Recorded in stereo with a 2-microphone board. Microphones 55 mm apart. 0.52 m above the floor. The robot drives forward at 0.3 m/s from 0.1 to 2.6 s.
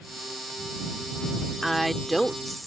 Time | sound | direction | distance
1.6 | a woman speaking | 5° left (ahead or behind) | ?